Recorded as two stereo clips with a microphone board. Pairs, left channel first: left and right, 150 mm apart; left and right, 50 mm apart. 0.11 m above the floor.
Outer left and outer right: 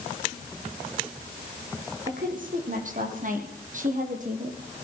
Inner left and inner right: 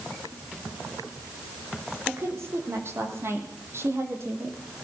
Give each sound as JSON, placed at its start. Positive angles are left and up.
{"t": 2.1, "sound": "a woman speaking", "side_deg": -65, "distance_m": 7.0}